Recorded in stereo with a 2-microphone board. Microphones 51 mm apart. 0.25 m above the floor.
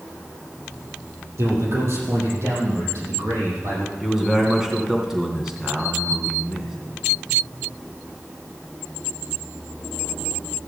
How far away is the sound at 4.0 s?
About 3 m.